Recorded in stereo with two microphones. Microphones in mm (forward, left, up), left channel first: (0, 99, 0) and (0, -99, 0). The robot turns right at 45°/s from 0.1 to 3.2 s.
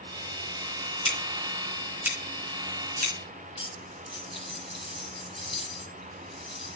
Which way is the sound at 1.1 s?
30° left (ahead or behind).